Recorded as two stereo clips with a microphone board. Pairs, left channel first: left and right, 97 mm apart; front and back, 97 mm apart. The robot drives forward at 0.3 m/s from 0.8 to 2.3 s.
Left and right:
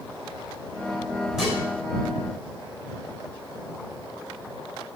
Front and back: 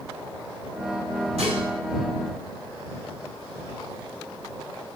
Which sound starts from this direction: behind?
Dishes clattering, at 1.4 s.